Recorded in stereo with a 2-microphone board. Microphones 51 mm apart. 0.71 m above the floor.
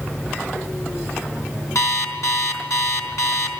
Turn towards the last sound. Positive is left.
turn(degrees=80)